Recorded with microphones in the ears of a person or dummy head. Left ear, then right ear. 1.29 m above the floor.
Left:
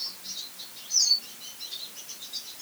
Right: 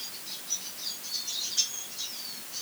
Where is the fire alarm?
I don't hear a fire alarm.